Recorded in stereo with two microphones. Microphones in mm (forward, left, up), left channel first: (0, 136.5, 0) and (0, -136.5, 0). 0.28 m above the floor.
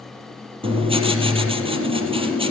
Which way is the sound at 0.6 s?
20° right (ahead or behind).